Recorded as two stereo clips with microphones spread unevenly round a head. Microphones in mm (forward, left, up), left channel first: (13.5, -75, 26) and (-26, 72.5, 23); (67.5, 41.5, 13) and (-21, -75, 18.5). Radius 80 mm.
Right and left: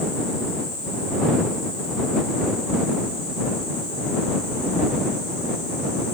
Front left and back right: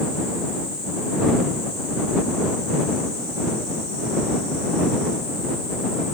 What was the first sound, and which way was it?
Only background noise.